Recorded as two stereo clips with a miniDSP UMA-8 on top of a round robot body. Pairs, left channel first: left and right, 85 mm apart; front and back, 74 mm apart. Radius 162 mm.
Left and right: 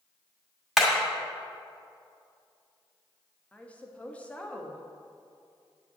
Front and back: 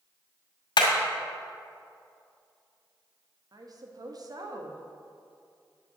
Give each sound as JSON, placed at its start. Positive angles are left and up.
{"t": 0.8, "sound": "hammering", "azimuth_deg": 0, "distance_m": 2.0}
{"t": 3.5, "sound": "a woman speaking", "azimuth_deg": 165, "distance_m": 1.7}